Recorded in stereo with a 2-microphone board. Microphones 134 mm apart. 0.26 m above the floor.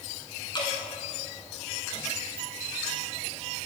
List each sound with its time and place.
0.5 s dripping: 35° left (ahead or behind), 1.3 m